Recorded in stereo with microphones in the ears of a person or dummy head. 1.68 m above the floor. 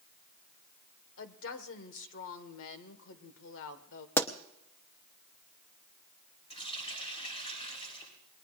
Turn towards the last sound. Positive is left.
turn(degrees=30)  # may be behind; listen again after turning